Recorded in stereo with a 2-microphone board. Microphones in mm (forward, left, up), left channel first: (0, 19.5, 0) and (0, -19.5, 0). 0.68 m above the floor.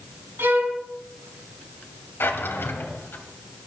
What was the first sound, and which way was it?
A violin, 80° right.